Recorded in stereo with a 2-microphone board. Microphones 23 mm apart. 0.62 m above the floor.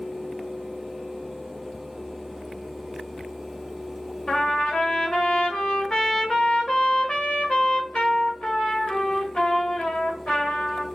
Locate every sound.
4.3 s a trumpet: 55° left (ahead or behind), 1.6 m